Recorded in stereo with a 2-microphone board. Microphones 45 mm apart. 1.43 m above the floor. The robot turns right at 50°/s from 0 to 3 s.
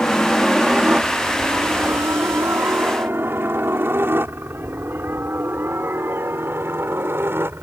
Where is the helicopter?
20° left (ahead or behind); by 7.6 s 55° right (ahead or behind).